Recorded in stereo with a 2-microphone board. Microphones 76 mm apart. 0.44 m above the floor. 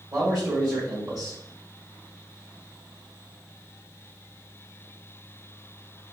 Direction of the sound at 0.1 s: 50° right (ahead or behind).